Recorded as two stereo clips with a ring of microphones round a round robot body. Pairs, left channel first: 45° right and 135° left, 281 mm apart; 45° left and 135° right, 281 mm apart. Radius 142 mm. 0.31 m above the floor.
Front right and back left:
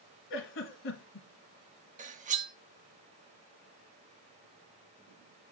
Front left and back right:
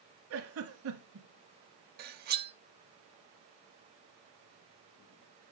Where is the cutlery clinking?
175° right, 0.6 m.